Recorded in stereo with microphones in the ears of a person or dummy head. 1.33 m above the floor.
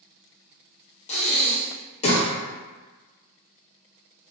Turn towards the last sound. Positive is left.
turn(degrees=40)  # may be behind; listen again after turning